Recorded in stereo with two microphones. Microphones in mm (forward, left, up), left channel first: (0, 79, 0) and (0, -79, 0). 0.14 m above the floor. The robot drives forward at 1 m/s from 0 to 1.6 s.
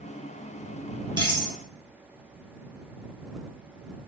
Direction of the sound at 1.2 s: 30° right (ahead or behind).